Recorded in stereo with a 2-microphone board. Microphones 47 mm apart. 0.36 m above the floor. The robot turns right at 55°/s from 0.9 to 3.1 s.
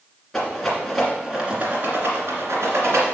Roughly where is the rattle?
Centre.